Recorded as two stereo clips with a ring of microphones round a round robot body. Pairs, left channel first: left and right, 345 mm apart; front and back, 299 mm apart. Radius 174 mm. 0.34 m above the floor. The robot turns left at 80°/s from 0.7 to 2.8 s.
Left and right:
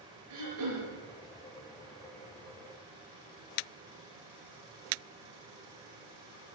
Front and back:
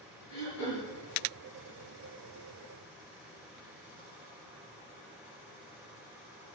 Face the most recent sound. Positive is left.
turn(degrees=145)